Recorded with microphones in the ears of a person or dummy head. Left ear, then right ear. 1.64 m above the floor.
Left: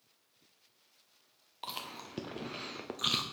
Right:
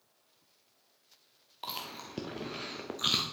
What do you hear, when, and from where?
1.6 s chewing: 5° left (ahead or behind), 0.6 m